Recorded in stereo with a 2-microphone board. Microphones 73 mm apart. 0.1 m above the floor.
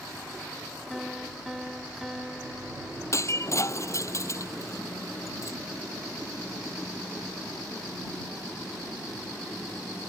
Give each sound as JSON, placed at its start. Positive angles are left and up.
{"t": 0.9, "sound": "a piano", "side_deg": -5}
{"t": 3.1, "sound": "breaking glass", "side_deg": 45}